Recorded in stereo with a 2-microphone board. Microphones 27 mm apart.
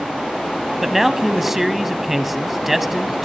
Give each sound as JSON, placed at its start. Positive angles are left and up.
{"t": 0.8, "sound": "a man speaking", "side_deg": -10, "distance_m": 1.0}